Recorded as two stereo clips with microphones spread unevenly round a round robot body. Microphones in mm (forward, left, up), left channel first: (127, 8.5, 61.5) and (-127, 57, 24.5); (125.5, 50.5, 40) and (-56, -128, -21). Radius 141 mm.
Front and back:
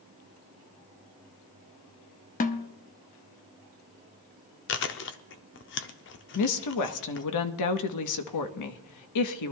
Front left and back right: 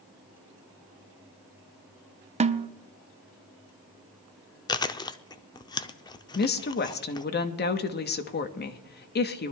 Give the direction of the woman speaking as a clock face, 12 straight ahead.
12 o'clock.